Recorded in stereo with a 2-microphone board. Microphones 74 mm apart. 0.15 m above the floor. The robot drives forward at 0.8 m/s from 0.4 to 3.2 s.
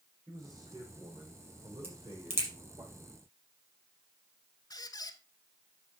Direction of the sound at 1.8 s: 35° right (ahead or behind).